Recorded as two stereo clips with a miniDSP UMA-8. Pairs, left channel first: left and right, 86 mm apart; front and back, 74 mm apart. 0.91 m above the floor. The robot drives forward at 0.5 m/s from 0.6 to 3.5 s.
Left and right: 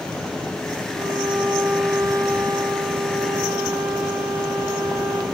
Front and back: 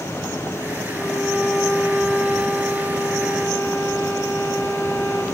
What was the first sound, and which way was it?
A violin, 90° right.